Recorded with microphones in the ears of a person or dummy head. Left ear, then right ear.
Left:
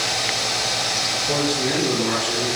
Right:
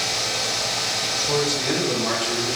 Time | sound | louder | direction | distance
1.2 | a man speaking | left 1 dB | 60° right (ahead or behind) | 1.6 m